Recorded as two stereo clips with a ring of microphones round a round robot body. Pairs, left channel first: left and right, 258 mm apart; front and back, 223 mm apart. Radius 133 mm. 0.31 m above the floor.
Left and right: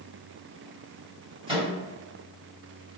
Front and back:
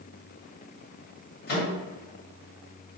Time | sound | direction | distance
1.5 | a microwave | 25° right | 1.7 m